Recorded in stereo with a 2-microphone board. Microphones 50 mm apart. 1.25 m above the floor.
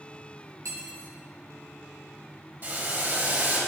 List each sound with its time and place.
0.7 s cutlery clinking: 80° right, 3 m
2.6 s boiling: 45° right (ahead or behind), 4 m